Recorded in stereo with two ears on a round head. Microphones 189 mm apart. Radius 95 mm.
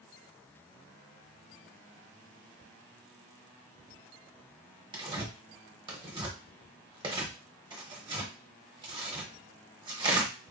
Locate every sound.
4.9 s tearing paper: 25° right (ahead or behind), 0.8 m